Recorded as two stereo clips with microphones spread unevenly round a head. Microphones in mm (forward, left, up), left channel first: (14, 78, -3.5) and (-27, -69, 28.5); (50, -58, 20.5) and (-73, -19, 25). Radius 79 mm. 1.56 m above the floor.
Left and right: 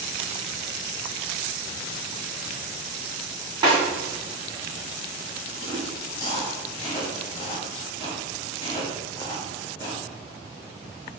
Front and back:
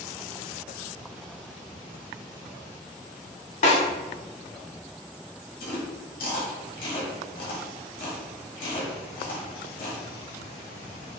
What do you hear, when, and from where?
3.6 s a snare drum: 35° right, 2.0 m
5.6 s chewing: 10° left, 1.7 m